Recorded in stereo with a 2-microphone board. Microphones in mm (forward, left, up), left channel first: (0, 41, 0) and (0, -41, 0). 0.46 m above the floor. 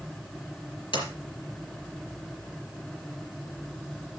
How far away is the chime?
No chime in this recording.